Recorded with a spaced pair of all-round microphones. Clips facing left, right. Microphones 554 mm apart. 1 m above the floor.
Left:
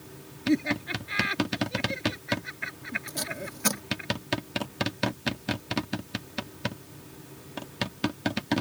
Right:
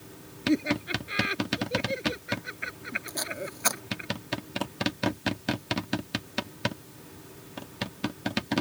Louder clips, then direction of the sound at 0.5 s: Even; 20° left (ahead or behind).